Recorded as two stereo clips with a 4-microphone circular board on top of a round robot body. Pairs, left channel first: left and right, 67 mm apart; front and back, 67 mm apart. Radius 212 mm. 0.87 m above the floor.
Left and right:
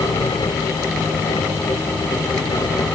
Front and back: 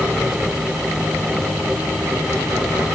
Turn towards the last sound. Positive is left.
No sound to turn to.